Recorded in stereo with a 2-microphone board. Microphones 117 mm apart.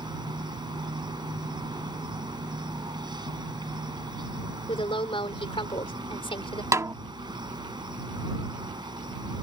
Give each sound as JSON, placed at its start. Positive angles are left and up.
{"t": 0.0, "sound": "an insect", "side_deg": -40}
{"t": 4.7, "sound": "a woman speaking", "side_deg": 50}
{"t": 6.7, "sound": "a snare drum", "side_deg": -25}